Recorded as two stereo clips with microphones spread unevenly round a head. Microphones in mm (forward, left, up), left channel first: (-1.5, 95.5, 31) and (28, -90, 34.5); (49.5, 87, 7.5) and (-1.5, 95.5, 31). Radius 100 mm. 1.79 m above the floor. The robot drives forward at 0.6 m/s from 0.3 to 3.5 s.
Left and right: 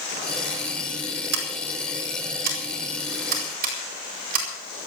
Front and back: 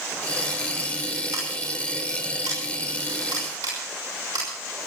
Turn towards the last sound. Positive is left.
turn(degrees=-130)